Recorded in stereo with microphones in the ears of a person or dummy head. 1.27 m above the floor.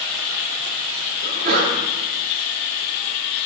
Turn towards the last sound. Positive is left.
turn(degrees=-55)  # may be behind; listen again after turning